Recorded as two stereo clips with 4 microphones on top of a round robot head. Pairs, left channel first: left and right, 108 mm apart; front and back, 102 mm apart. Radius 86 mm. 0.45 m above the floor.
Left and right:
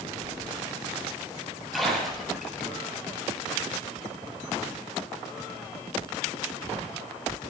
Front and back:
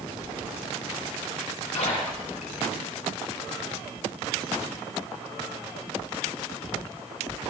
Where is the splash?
Straight ahead, 8 m.